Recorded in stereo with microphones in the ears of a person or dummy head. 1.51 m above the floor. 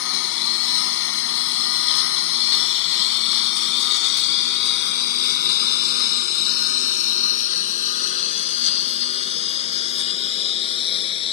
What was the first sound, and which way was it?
A lawn mower, 70° left (ahead or behind).